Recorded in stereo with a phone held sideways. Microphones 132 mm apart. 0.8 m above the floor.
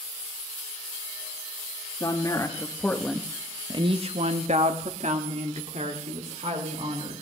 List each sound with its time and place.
2.0 s a woman speaking: 30° left (ahead or behind), 1.5 m; by 7.2 s 55° right (ahead or behind), 3.5 m